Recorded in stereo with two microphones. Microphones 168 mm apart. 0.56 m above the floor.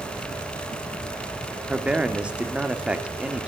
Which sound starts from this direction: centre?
A man speaking, at 1.7 s.